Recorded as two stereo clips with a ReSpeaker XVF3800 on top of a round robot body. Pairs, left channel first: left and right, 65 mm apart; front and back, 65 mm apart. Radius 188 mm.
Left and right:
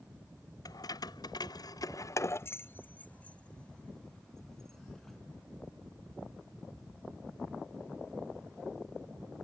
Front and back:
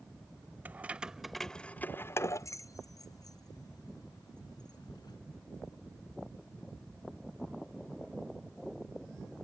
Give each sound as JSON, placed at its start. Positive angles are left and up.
{"t": 0.7, "sound": "keys jangling", "azimuth_deg": 115}